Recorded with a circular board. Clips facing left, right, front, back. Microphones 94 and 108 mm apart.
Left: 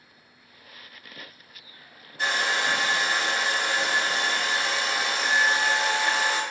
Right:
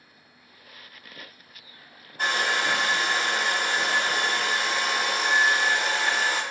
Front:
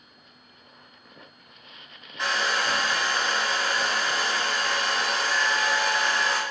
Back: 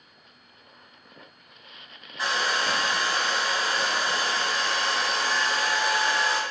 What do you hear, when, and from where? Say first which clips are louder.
2.2 s a hair dryer: right 1 dB, even; 95° right, 1.3 m